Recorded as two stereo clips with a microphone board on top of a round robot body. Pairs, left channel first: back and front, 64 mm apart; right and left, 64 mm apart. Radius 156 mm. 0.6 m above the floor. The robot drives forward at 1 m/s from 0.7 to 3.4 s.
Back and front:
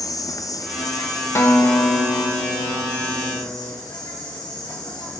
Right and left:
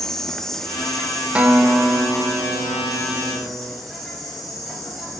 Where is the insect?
175° right, 1.4 m; by 5.2 s straight behind, 4 m.